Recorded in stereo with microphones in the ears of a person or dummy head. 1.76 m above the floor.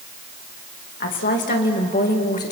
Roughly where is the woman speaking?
Left.